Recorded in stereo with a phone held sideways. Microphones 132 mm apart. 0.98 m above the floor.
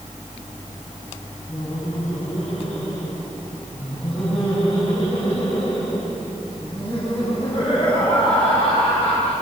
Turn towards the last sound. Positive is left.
turn(degrees=50)  # may be behind; listen again after turning